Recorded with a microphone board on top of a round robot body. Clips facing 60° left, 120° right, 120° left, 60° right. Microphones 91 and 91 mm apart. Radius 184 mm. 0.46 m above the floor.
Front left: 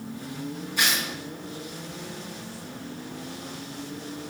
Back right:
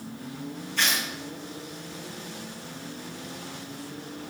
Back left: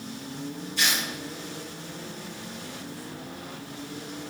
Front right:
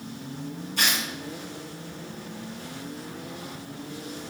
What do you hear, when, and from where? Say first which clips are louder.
0.8 s tearing paper: front left 1 dB, front right 1 dB; 20° right, 4.5 m